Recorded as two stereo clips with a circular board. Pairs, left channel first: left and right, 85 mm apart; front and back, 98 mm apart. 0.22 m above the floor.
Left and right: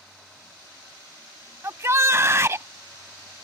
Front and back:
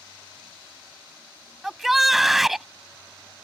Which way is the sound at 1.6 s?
95° right.